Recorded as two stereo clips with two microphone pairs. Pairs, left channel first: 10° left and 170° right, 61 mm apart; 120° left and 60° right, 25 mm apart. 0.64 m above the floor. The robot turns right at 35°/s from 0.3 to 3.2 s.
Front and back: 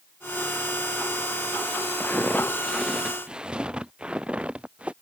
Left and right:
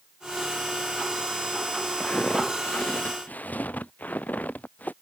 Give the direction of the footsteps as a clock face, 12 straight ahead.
10 o'clock.